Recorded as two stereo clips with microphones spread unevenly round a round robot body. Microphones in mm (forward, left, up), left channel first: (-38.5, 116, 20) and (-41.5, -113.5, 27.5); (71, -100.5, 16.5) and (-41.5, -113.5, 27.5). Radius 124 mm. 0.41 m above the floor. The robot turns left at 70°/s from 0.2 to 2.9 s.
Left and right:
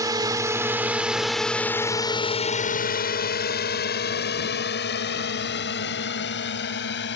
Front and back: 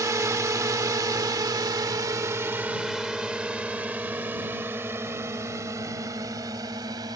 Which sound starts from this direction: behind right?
A drone, at 0.0 s.